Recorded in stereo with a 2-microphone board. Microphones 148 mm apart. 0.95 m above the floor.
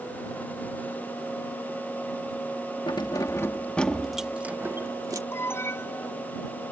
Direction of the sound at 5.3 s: 15° left (ahead or behind).